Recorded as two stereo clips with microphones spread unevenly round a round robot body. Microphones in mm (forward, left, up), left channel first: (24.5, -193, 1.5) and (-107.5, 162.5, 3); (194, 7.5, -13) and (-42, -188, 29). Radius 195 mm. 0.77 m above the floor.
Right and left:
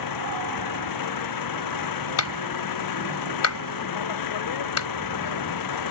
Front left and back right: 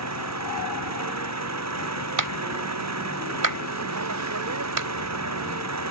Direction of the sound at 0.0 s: 105° right.